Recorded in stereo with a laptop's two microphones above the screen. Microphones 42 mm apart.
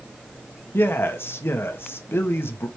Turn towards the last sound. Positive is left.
turn(degrees=70)  # may be behind; listen again after turning